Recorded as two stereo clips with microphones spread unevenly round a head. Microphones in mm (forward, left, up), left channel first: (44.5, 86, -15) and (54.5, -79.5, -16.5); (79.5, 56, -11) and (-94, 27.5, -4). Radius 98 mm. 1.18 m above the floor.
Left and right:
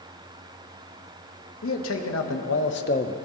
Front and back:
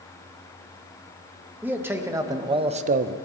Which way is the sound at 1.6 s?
110° left.